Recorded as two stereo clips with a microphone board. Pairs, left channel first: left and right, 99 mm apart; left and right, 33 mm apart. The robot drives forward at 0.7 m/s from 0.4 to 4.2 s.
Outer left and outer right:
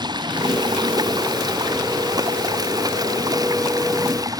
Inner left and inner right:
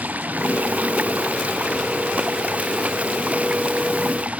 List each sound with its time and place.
0.0 s running water: 45° right (ahead or behind); by 4.4 s 35° right (ahead or behind)